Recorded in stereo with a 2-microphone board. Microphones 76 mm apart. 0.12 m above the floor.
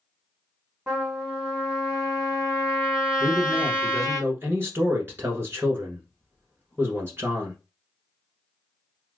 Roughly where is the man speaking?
Right.